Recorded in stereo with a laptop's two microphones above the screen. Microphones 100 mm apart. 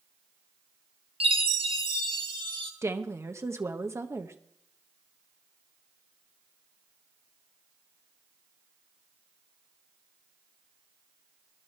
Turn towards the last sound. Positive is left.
turn(degrees=-30)  # may be behind; listen again after turning